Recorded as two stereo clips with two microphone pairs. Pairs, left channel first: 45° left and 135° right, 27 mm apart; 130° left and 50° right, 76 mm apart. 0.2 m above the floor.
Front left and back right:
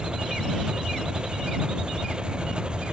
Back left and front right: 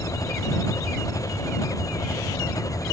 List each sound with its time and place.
0.0 s an engine running: 170° left